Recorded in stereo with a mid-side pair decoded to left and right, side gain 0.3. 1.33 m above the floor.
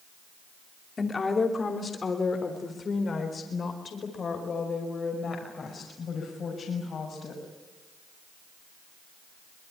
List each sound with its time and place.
1.0 s a woman speaking: 45° left, 3 m; by 7.4 s 70° left, 6.5 m